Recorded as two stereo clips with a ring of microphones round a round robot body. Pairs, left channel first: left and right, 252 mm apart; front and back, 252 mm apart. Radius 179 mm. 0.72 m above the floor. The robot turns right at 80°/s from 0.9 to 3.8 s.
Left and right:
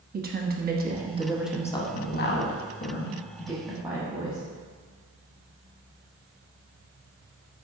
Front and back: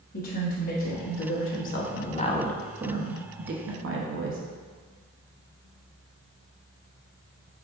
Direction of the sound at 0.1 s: 50° right.